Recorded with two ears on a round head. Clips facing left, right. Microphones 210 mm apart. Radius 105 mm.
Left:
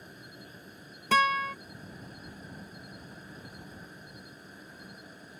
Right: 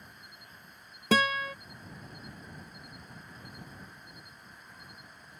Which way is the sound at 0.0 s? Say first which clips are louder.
Left 8 dB; 30° left (ahead or behind).